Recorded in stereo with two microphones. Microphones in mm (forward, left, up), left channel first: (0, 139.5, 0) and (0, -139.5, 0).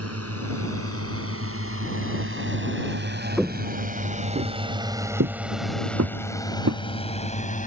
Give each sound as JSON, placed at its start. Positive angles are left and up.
{"t": 0.0, "sound": "a drone", "side_deg": -70}
{"t": 3.4, "sound": "footsteps", "side_deg": 0}